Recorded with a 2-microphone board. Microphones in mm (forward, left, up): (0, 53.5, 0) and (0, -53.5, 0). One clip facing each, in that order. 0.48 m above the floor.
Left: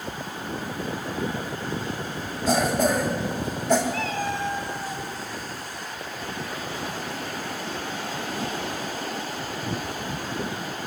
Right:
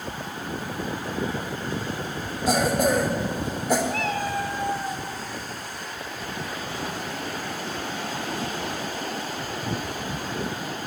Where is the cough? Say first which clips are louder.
Even; 10° right (ahead or behind), 1.3 m.